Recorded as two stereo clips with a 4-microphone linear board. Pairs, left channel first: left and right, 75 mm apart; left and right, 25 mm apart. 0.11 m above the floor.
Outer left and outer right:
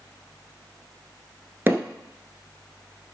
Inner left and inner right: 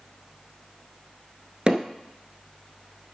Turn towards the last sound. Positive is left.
turn(degrees=-30)  # may be behind; listen again after turning